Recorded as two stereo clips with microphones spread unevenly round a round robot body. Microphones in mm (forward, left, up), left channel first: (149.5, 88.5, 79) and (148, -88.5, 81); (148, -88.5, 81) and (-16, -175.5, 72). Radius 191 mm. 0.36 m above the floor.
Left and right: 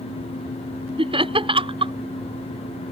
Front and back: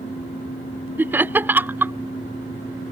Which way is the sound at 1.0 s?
90° right.